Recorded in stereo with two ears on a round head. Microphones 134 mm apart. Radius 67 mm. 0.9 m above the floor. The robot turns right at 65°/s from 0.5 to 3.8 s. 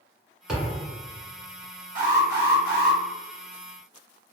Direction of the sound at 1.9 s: 125° right.